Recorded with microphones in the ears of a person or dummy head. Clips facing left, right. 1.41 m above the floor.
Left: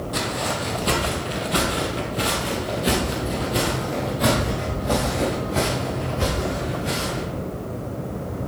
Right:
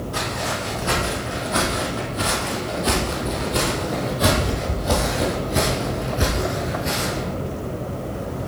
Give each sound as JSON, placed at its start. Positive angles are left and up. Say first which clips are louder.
{"t": 0.1, "sound": "footsteps", "louder": "left 2 dB", "side_deg": 55, "distance_m": 2.5}